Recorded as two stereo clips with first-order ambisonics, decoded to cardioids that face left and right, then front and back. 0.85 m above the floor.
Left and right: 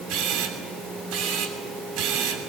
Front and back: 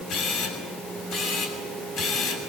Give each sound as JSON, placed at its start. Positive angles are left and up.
{"t": 0.1, "sound": "a camera shutter", "azimuth_deg": -50, "distance_m": 7.0}